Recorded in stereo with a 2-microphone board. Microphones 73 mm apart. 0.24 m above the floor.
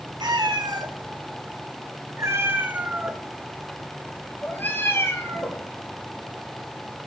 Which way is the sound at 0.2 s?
75° right (ahead or behind).